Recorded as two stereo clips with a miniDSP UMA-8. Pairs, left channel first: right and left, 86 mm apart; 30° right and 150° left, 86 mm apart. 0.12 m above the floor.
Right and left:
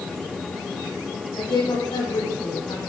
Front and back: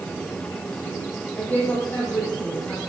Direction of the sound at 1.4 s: 105° right.